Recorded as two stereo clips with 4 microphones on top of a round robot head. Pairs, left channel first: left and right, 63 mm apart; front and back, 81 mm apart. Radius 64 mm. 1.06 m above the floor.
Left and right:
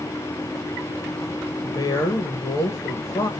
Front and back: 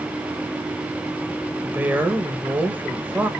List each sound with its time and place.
1.6 s a woman speaking: 110° left, 1.2 m